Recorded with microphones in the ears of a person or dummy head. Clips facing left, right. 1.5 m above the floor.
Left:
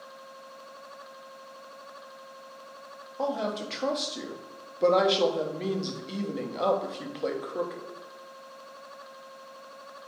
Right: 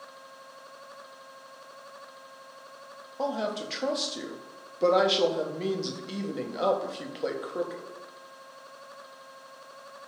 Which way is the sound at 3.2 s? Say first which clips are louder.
Even; centre (ahead or behind).